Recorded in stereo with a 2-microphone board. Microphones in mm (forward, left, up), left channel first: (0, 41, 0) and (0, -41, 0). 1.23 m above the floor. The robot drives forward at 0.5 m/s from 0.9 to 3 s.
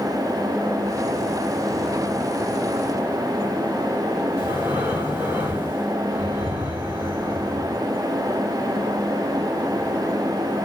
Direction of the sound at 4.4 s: 25° right (ahead or behind).